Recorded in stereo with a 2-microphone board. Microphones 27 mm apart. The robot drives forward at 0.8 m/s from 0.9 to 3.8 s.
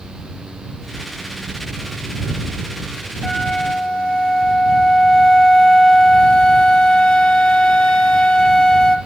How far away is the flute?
About 1.2 m.